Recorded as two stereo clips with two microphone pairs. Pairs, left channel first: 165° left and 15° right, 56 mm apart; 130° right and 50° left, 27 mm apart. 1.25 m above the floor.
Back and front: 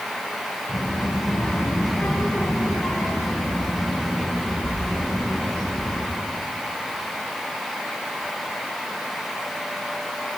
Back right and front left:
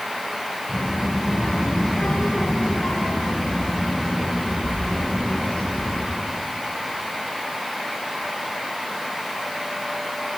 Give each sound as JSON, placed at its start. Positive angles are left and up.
{"t": 0.7, "sound": "a child speaking", "azimuth_deg": -140, "distance_m": 6.5}